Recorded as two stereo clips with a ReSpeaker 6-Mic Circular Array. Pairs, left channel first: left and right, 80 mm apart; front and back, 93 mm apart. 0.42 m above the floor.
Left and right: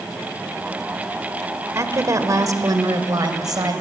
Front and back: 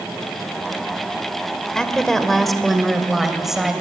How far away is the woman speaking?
About 1.7 m.